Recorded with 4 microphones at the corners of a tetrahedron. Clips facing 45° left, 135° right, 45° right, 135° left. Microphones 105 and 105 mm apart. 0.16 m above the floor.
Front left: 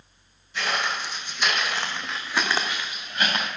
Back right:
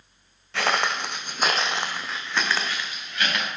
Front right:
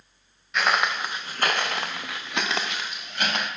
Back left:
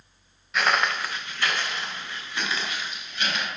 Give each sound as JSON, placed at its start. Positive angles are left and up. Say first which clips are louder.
{"t": 0.5, "sound": "footsteps", "louder": "back right 3 dB, even", "azimuth_deg": -135, "distance_m": 0.9}